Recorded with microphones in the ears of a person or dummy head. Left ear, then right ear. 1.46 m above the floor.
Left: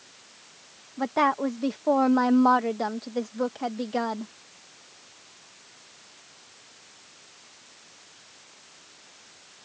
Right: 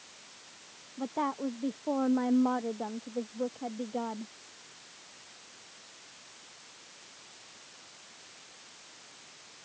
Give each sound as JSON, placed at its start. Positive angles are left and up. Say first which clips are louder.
{"t": 1.0, "sound": "a woman speaking", "louder": "left 10 dB", "side_deg": 75}